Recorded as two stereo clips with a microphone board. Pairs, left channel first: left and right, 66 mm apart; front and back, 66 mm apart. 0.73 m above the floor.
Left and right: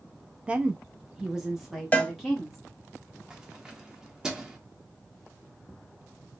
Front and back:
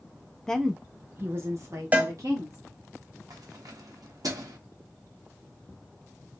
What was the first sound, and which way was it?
A woman speaking, 55° right.